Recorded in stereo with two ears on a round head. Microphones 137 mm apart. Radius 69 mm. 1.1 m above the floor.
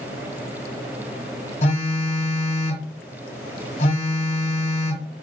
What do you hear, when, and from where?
1.6 s a phone buzzing: 45° left (ahead or behind), 1.1 m